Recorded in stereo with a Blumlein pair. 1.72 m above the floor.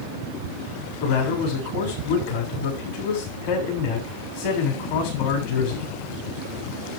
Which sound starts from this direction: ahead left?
A man speaking, at 1.0 s.